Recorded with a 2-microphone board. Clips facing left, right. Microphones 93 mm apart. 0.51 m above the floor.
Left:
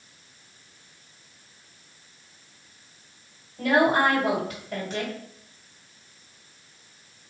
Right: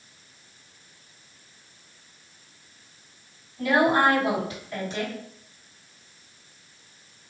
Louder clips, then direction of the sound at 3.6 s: Even; 50° left (ahead or behind).